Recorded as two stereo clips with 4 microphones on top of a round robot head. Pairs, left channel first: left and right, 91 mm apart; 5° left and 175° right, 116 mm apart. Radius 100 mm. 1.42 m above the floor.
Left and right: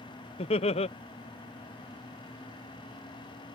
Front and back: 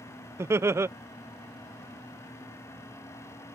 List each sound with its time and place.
0.4 s laughter: 115° left